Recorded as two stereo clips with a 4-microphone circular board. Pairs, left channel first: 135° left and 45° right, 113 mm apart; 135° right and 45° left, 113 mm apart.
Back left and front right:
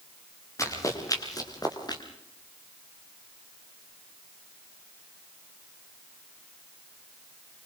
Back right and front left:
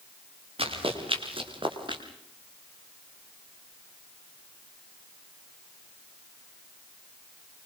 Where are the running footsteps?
75° left, 6 m; by 2.0 s 85° left, 4.5 m.